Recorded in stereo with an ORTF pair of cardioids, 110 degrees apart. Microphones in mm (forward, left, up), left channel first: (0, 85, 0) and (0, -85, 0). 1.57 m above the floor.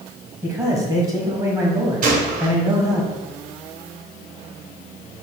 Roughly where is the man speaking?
Ahead.